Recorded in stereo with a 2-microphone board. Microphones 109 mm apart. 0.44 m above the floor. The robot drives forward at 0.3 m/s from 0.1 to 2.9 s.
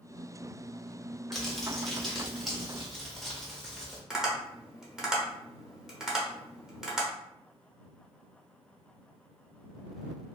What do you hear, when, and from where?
1.3 s crumpling: centre (ahead or behind), 0.7 m
4.1 s tapping: 5° right (ahead or behind), 0.7 m